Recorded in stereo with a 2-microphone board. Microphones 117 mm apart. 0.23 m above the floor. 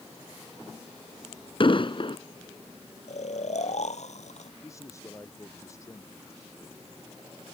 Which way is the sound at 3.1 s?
80° left.